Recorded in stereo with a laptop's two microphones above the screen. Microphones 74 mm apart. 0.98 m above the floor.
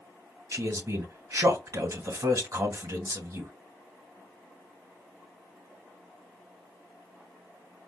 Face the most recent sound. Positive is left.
turn(degrees=-45)  # may be behind; listen again after turning